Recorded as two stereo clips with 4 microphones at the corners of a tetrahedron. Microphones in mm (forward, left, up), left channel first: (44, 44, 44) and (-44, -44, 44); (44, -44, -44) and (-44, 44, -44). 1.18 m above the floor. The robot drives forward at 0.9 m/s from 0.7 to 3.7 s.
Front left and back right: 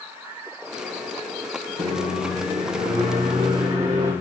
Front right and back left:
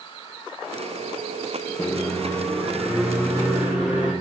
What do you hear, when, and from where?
1.8 s a microwave: 105° right, 1.1 m; by 4.1 s 155° right, 2.5 m